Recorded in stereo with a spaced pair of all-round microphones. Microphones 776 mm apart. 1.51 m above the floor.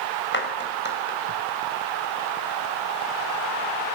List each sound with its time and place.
0.3 s a clap: 15° left (ahead or behind), 5.5 m